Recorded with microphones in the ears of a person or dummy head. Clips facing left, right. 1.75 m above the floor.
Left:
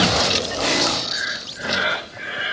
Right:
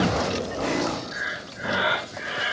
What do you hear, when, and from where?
1.1 s breathing: 25° left (ahead or behind), 1.9 m